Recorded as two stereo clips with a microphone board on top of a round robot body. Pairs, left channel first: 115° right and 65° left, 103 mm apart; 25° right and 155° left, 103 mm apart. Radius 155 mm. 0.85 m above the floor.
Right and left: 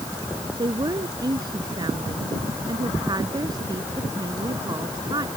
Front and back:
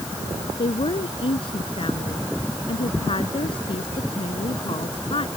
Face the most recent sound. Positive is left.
turn(degrees=15)